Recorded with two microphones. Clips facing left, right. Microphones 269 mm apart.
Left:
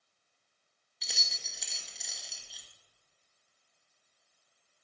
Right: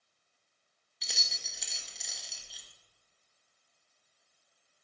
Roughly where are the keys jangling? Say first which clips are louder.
Even; centre.